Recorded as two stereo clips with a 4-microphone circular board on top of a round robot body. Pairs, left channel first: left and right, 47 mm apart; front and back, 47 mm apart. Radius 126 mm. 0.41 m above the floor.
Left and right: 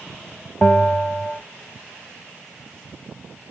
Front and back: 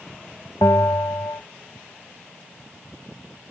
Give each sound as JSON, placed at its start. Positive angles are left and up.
{"t": 0.6, "sound": "a bell", "azimuth_deg": 15, "distance_m": 0.7}